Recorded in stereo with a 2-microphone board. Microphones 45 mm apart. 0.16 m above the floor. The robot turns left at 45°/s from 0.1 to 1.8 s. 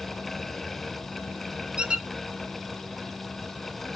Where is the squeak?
25° right (ahead or behind), 0.6 m; by 2.1 s 20° right (ahead or behind), 0.6 m.